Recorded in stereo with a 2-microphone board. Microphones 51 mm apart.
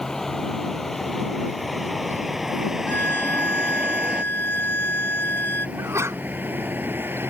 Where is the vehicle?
10° left (ahead or behind); by 7.3 s 50° right (ahead or behind).